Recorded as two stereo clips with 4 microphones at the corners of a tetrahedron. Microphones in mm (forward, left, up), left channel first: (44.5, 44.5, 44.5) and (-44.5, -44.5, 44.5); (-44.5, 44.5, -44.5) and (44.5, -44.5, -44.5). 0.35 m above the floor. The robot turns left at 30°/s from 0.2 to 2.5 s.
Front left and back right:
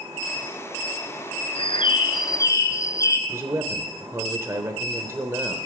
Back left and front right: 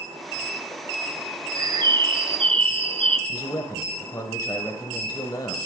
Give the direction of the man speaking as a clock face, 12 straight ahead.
6 o'clock.